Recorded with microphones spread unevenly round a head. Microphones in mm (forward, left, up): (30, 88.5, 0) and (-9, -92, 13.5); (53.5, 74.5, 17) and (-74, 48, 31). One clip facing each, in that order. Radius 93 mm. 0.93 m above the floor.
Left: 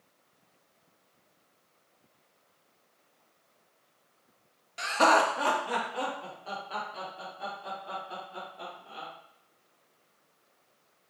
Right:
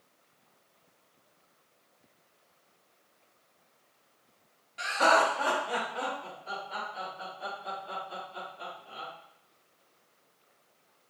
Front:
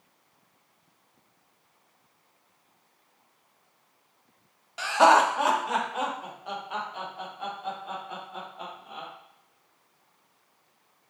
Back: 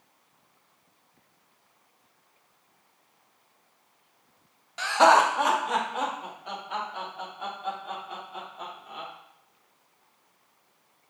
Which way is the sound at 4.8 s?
95° left.